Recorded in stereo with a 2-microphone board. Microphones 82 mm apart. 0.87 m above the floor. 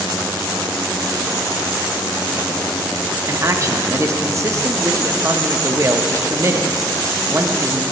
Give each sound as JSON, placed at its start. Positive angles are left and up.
{"t": 3.3, "sound": "a man speaking", "side_deg": -35, "distance_m": 0.8}